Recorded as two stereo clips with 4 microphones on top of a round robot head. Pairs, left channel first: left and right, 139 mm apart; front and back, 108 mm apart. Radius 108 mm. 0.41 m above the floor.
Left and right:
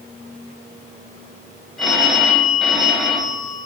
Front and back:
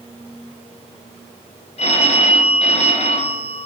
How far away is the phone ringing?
About 1.7 m.